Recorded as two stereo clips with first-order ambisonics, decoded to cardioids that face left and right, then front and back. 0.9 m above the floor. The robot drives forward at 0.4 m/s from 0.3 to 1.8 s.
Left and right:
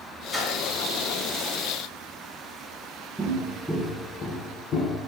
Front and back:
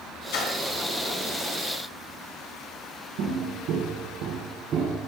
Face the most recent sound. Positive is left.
turn(degrees=120)